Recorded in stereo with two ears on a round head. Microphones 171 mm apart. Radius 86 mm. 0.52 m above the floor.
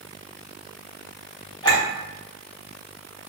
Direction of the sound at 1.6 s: 25° left (ahead or behind).